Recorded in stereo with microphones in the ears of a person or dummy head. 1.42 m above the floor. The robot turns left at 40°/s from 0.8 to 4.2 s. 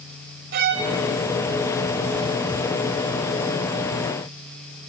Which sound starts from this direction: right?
A violin, at 0.5 s.